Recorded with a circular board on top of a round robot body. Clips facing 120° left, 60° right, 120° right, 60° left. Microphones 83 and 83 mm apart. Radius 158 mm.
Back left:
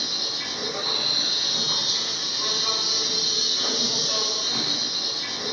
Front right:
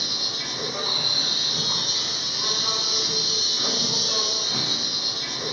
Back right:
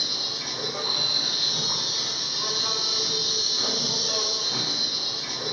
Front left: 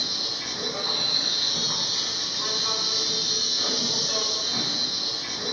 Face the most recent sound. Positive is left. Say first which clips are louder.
# even, even
turn(degrees=-155)